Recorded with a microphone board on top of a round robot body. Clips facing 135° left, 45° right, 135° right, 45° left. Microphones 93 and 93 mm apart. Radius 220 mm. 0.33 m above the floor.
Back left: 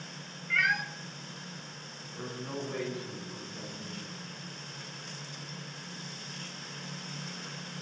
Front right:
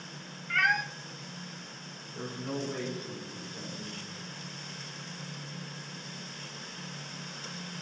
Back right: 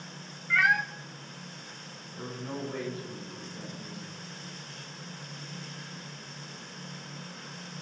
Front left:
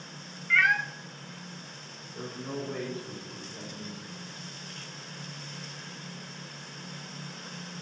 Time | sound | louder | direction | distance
0.5 | a cat meowing | front right 2 dB, even | 70° right | 0.5 m
2.1 | a man speaking | front right 2 dB, front left 1 dB | 20° left | 2 m